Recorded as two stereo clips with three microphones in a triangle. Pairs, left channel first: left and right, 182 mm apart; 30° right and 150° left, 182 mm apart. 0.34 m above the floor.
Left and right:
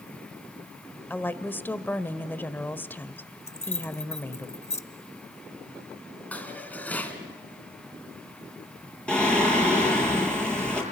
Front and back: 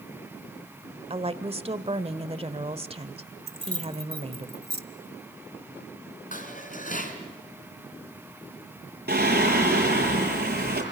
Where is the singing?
175° left, 6 m.